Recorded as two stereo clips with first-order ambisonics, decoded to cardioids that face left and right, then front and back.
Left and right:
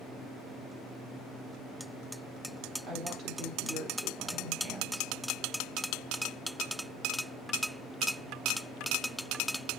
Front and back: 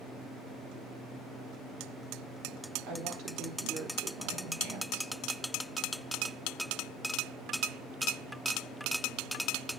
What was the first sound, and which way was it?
A woman speaking, 145° right.